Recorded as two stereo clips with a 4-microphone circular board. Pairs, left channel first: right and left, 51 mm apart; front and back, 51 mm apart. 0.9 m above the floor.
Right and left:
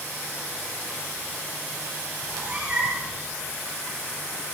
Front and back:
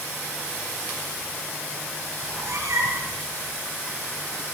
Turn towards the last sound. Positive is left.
turn(degrees=160)